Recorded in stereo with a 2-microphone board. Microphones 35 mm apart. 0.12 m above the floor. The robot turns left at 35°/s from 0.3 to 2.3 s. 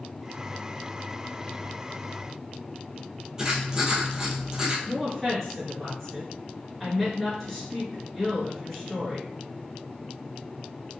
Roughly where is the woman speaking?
Centre.